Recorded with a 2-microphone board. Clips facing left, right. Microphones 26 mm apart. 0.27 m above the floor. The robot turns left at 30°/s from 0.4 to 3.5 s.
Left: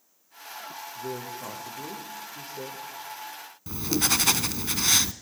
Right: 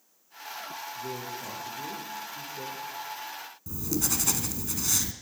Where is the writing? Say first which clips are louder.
Left 5 dB; 55° left (ahead or behind), 1.1 m.